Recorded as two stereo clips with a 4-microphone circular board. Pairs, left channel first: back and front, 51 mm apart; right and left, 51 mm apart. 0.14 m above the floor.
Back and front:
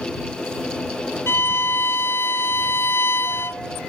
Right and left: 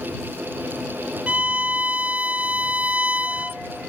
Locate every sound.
1.3 s a violin: 150° left